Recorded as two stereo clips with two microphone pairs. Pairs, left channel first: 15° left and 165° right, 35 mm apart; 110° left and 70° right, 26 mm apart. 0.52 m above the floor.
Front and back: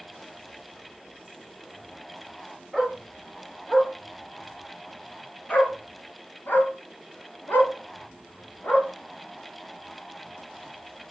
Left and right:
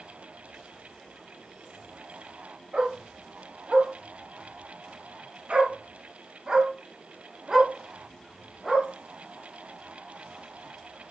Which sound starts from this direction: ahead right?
A dog barking, at 2.7 s.